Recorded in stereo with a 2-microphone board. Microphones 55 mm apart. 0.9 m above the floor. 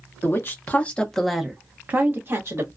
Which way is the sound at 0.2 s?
45° left (ahead or behind).